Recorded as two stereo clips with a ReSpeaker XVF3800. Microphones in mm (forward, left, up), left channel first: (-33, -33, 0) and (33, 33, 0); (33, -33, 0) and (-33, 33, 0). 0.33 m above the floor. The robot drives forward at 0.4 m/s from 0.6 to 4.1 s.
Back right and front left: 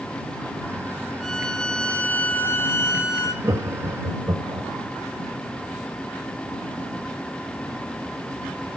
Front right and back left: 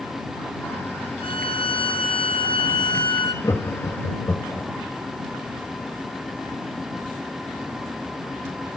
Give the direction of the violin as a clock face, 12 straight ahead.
2 o'clock.